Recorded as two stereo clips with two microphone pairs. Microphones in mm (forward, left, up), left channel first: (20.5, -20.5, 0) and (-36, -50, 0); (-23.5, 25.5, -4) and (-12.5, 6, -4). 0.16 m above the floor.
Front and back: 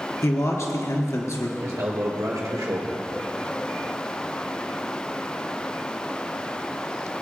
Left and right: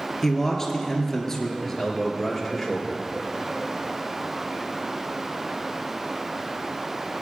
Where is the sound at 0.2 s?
55° left, 2 m.